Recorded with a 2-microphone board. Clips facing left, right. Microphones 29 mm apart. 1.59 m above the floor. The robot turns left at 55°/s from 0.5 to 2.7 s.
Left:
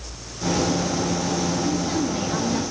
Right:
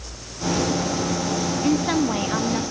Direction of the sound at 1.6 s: 120° right.